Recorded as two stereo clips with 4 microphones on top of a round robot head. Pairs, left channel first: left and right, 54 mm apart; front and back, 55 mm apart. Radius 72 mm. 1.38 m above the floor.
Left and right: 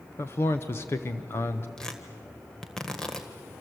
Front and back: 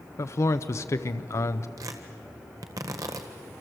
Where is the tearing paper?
170° left, 1.6 m.